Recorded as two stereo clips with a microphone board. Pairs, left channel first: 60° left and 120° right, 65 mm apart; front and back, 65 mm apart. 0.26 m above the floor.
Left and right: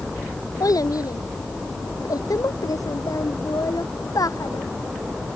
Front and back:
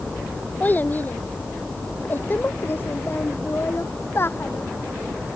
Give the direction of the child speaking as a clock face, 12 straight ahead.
10 o'clock.